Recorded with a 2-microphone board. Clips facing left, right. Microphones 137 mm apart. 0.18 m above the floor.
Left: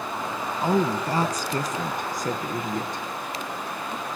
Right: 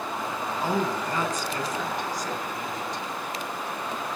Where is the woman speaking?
15° left (ahead or behind), 1.5 m; by 3.0 s 55° left (ahead or behind), 4 m.